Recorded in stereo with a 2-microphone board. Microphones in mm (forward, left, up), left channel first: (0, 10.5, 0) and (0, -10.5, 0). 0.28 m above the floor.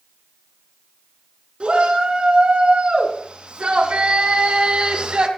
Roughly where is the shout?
Right.